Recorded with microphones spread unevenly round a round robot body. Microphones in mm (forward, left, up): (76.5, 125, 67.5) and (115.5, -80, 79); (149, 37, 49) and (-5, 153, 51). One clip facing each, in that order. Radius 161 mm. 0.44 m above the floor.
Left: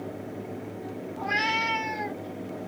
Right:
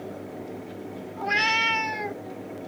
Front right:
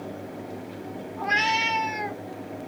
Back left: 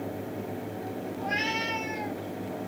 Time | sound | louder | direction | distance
1.2 | a cat meowing | right 3 dB, front right 2 dB | 20° right | 0.7 m